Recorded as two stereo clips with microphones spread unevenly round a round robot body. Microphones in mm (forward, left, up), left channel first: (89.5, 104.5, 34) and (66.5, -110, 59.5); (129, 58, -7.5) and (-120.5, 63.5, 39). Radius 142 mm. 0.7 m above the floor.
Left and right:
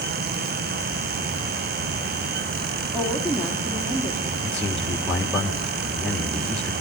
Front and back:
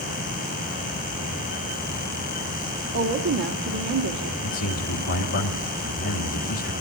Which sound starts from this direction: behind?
A woman speaking, at 2.9 s.